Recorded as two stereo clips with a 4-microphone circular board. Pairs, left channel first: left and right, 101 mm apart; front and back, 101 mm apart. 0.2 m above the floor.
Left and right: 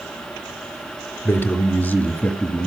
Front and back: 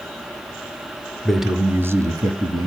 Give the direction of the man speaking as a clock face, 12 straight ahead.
9 o'clock.